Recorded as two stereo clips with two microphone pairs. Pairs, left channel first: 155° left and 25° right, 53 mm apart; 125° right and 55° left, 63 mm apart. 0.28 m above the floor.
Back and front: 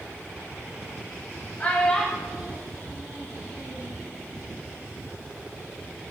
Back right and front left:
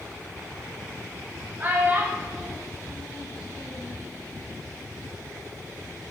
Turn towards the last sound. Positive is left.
turn(degrees=-50)